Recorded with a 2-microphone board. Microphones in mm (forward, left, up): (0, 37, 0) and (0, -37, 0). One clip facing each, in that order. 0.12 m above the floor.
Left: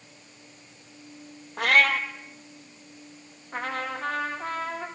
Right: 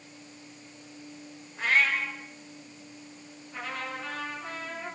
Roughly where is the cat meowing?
Left.